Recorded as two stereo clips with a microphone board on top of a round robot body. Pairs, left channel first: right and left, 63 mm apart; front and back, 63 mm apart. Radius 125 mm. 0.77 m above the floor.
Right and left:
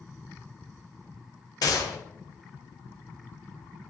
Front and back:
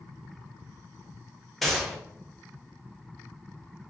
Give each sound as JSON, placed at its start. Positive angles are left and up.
{"t": 1.6, "sound": "a gunshot", "azimuth_deg": -90, "distance_m": 0.7}